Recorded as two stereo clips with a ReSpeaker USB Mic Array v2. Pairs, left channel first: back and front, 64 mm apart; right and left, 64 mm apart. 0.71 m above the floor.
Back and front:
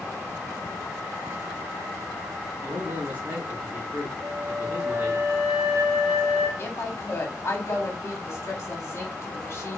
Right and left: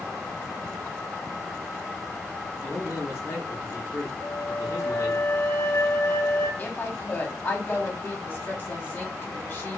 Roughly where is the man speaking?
Ahead right.